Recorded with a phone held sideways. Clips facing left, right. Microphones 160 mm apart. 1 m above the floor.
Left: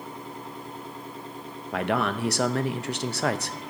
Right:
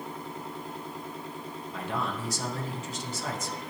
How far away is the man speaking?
About 0.7 m.